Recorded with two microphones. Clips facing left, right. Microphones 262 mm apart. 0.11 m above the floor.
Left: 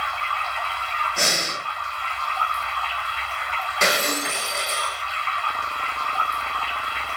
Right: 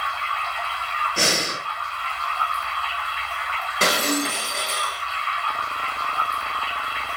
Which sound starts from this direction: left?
Running water, at 0.0 s.